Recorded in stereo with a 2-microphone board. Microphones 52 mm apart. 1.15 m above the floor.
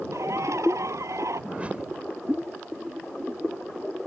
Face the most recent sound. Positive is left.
turn(degrees=-25)  # may be behind; listen again after turning